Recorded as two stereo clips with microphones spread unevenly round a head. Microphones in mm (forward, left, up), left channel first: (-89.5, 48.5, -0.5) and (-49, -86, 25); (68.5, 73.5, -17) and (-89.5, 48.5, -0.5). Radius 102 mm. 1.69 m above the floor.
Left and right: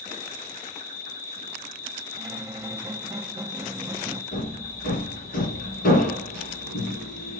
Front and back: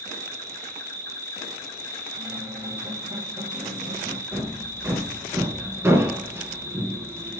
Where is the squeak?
115° right, 1.0 m.